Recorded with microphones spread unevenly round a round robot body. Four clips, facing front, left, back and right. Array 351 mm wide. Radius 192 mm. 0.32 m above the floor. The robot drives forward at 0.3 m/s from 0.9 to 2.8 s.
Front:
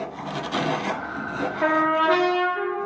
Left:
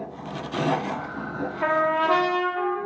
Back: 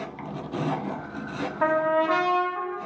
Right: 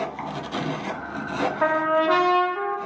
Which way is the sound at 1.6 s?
150° right.